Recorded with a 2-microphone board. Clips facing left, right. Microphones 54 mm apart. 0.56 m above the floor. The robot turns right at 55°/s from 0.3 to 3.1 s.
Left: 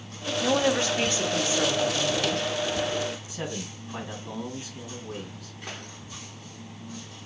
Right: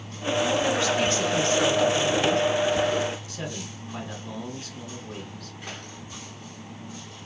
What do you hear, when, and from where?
0.4 s a woman speaking: 110° left, 0.9 m; by 2.5 s 135° right, 0.9 m
3.3 s a man speaking: 10° left (ahead or behind), 3 m